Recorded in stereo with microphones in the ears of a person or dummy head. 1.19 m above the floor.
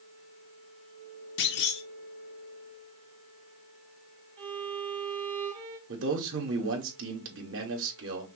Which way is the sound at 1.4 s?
55° left (ahead or behind).